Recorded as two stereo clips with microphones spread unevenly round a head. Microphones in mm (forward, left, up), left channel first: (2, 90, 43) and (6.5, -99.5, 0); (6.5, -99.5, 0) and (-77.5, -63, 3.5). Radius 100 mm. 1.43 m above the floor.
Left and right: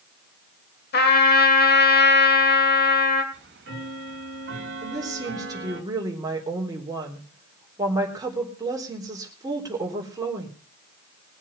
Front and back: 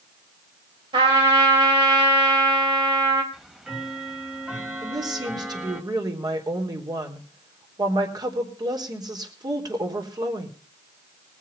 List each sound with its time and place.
0.9 s a trumpet: 115° left, 2 m
3.3 s ticking: 120° right, 2.5 m
4.8 s a woman speaking: 165° right, 3.5 m